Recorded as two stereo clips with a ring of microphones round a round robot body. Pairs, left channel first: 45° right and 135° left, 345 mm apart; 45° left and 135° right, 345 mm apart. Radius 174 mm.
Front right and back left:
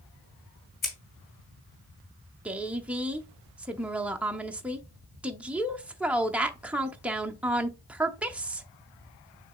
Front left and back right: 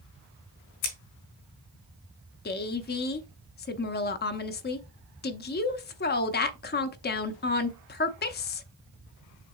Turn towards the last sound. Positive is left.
turn(degrees=55)